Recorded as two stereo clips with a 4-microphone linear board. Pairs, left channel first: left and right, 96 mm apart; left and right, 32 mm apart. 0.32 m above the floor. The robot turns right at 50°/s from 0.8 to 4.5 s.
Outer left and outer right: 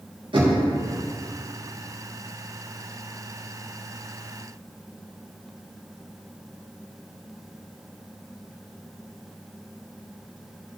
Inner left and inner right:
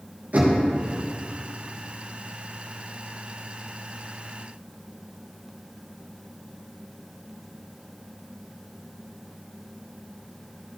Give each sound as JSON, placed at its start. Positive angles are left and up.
{"t": 0.3, "sound": "knocking", "side_deg": -60, "distance_m": 4.0}